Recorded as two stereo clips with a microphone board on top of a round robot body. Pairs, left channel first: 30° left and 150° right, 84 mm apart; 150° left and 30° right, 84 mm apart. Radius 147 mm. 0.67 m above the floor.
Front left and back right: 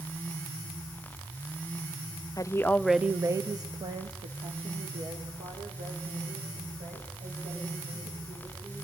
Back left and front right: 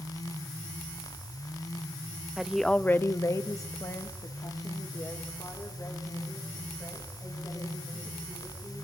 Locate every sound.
2.4 s a woman speaking: 50° left, 0.9 m; by 8.8 s 155° right, 6.5 m